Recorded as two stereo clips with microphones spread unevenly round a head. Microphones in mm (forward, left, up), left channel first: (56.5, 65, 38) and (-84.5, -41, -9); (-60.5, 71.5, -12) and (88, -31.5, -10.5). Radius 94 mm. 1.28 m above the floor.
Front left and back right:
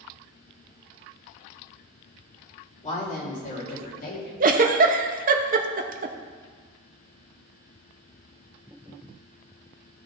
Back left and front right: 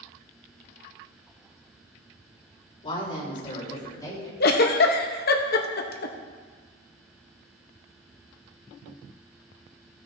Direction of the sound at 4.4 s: 170° left.